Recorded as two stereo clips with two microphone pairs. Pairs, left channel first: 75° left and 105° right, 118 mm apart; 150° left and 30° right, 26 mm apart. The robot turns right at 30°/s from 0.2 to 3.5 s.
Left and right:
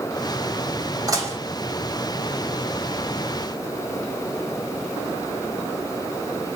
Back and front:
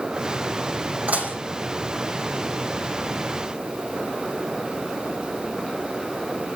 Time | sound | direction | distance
1.1 | dishes clattering | 45° right | 6.5 m